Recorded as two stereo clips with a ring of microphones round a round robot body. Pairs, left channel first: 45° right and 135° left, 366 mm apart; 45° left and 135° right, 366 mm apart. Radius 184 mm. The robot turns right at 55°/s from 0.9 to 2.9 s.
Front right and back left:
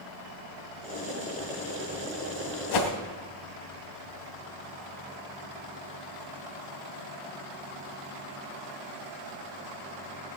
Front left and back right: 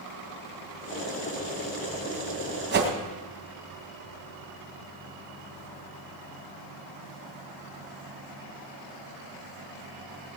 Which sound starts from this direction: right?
A whoosh, at 2.7 s.